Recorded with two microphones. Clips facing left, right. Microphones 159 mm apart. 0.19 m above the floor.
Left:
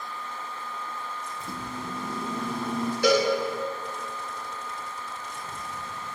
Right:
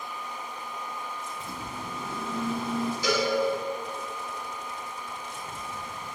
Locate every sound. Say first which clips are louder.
1.4 s a microwave: left 2 dB; 45° left (ahead or behind), 5 m
3.0 s a cowbell: left 7 dB; 60° left (ahead or behind), 6 m